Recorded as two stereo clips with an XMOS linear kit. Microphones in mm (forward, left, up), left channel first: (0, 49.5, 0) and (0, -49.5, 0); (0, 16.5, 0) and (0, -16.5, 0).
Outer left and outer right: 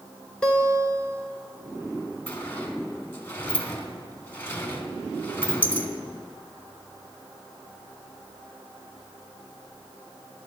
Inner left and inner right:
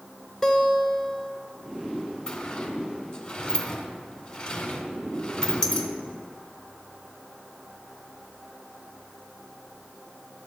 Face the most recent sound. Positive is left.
turn(degrees=20)  # may be behind; listen again after turning